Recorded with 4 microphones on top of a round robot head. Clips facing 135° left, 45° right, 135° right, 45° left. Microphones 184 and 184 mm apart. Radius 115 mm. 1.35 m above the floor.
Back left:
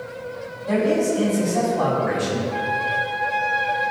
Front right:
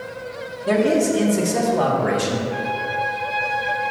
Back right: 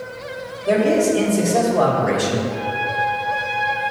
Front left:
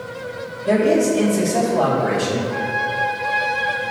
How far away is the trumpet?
About 2.5 m.